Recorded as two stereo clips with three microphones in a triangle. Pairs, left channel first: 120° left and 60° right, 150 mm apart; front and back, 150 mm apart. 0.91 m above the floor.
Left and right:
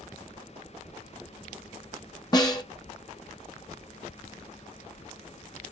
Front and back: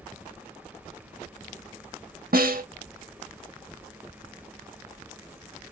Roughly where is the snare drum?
Behind.